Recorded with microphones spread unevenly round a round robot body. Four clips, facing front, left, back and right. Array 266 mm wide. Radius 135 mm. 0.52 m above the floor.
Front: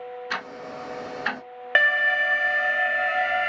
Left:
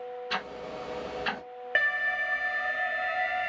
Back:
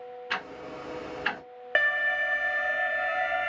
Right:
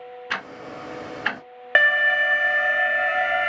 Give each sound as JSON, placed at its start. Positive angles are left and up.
{"t": 0.3, "sound": "ticking", "azimuth_deg": -85, "distance_m": 1.5}
{"t": 1.8, "sound": "an alarm", "azimuth_deg": -65, "distance_m": 0.5}